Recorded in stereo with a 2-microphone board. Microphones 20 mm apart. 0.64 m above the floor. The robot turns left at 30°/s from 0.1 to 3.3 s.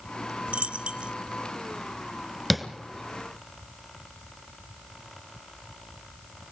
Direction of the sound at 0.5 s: 70° right (ahead or behind).